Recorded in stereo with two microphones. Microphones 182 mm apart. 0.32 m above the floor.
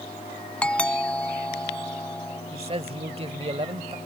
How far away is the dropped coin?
No dropped coin in this recording.